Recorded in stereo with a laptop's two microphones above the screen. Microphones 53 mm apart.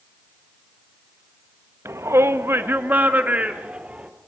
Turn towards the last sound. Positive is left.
turn(degrees=-25)  # may be behind; listen again after turning